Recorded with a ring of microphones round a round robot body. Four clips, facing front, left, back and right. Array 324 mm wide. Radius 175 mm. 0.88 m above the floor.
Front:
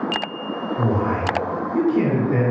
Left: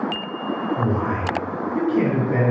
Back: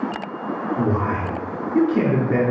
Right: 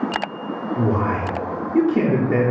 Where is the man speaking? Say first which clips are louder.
Right 2 dB, front 2 dB; 115° right, 1.2 m.